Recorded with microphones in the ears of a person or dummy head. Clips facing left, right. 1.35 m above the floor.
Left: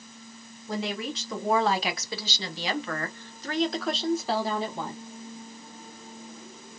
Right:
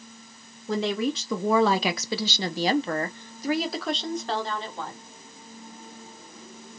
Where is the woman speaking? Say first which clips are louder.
Right 6 dB; 75° right (ahead or behind), 1.0 m; by 5.0 s 15° left (ahead or behind), 1.6 m.